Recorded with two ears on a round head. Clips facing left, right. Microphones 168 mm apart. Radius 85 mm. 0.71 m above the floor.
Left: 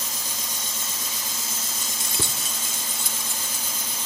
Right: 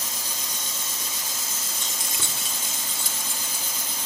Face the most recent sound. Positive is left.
turn(degrees=50)  # may be behind; listen again after turning